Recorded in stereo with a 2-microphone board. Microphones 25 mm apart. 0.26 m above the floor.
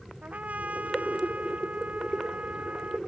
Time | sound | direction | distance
0.2 | a trumpet | 85° right | ?